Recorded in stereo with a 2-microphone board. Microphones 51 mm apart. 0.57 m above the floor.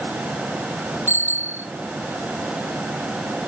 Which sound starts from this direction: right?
A bicycle bell, at 1.1 s.